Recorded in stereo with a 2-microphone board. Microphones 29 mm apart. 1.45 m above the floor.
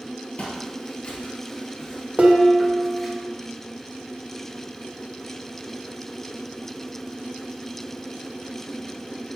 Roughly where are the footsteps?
Left.